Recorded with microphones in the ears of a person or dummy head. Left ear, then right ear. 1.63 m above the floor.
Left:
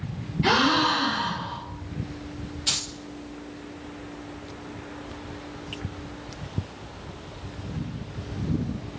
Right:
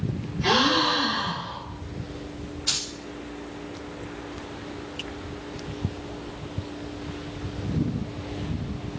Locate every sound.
0.4 s a gasp: 30° left (ahead or behind), 2 m
2.7 s keys jangling: 60° left (ahead or behind), 2 m